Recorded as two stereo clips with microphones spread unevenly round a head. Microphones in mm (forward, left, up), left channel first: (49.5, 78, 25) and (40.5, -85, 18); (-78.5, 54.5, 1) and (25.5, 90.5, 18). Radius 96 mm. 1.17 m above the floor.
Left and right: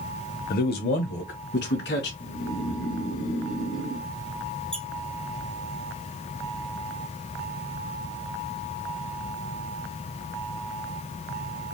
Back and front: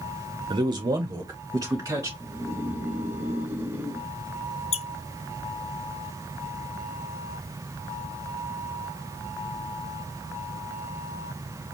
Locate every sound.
0.5 s a man speaking: 65° left, 0.7 m; by 2.1 s 80° left, 1.7 m
2.2 s snoring: 90° left, 1.2 m
4.7 s a squeak: 170° left, 0.5 m